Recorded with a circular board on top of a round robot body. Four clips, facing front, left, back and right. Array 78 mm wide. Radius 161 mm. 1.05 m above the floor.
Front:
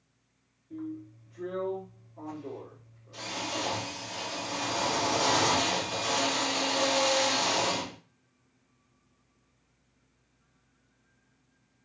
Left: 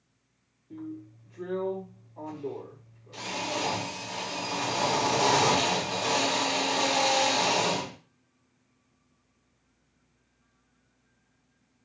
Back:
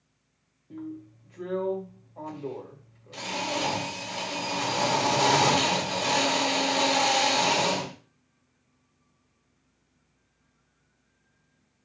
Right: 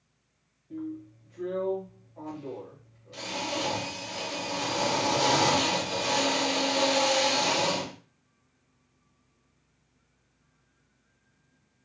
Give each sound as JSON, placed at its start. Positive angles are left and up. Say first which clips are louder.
{"t": 0.7, "sound": "a drill", "louder": "right 3 dB, even", "azimuth_deg": 180, "distance_m": 1.7}